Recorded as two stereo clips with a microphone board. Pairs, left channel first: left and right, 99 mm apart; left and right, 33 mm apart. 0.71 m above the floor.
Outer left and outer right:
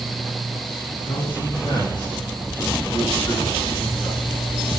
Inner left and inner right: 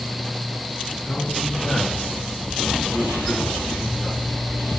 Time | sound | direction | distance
0.9 | a man speaking | 50° left (ahead or behind) | 8.5 m